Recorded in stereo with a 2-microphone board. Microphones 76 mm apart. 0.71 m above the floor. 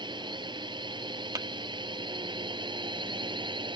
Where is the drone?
70° right (ahead or behind); by 3.8 s 75° right (ahead or behind).